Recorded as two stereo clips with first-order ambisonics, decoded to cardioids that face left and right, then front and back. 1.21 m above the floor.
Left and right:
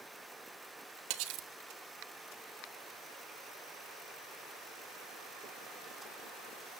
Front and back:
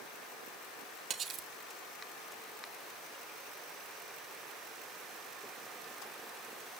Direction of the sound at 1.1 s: 115° right.